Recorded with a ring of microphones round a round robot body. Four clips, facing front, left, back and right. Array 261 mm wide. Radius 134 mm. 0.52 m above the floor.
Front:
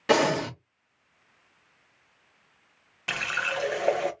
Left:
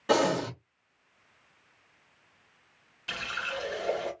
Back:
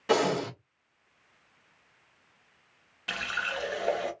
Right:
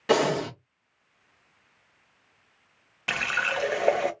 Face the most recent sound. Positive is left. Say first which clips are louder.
# right 7 dB, front 3 dB
turn(degrees=-70)